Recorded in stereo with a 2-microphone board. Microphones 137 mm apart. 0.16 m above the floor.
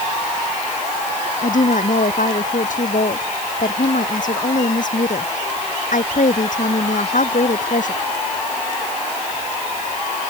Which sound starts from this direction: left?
A woman speaking, at 1.4 s.